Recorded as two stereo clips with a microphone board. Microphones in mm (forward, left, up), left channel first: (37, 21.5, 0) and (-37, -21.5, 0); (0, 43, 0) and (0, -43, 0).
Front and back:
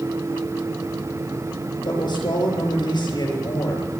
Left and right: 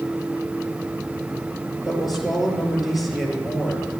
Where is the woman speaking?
5° right, 5.5 m.